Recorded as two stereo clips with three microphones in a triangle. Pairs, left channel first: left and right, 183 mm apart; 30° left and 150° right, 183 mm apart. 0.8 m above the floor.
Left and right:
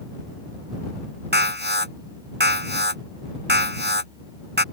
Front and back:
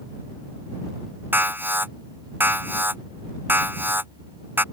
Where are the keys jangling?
No keys jangling in this recording.